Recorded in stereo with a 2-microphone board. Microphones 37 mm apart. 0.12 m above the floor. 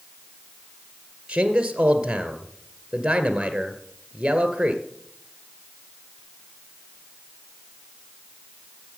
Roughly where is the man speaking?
Right.